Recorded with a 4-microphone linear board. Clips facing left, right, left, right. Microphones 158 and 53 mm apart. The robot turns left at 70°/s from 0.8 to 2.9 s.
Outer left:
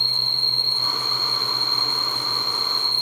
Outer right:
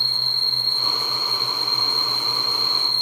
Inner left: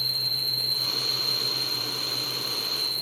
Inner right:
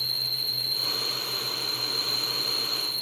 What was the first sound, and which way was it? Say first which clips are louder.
An insect: outer left 1 dB, inner left 2 dB; 20° left.